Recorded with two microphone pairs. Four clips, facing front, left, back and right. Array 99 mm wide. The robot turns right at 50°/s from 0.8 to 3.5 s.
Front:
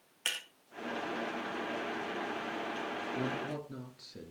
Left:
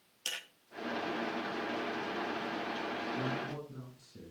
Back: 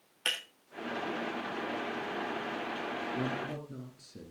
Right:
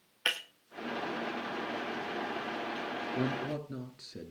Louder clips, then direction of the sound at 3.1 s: Right 4 dB, back 1 dB; 95° right.